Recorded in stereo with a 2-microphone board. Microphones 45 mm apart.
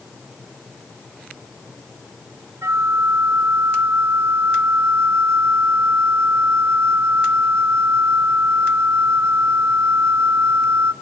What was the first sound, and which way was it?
A flute, 85° right.